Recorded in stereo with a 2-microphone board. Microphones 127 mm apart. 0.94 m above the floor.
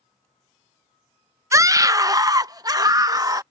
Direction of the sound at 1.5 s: 25° right (ahead or behind).